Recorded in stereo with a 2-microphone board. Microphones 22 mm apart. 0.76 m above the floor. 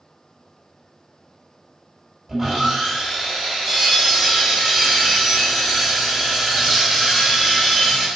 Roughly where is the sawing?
Centre.